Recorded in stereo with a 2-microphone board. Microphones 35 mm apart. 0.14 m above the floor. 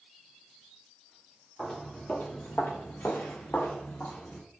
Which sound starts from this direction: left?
Footsteps, at 1.6 s.